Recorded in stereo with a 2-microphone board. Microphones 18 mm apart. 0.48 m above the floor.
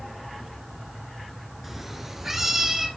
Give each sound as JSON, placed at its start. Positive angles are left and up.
{"t": 1.6, "sound": "a cat meowing", "side_deg": -15, "distance_m": 1.8}